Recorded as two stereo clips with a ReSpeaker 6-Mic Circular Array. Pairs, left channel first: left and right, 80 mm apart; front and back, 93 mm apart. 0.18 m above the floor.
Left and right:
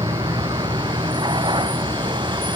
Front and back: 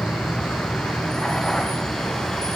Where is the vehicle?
80° right; by 2.6 s 85° right.